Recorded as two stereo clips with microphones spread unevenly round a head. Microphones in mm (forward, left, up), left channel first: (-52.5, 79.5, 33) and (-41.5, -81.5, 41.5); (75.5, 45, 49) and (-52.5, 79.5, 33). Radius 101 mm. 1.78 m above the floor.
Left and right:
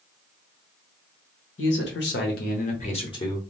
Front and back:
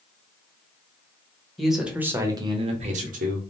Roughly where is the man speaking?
Left.